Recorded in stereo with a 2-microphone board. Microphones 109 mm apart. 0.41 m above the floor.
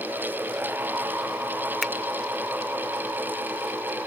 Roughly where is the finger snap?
Centre.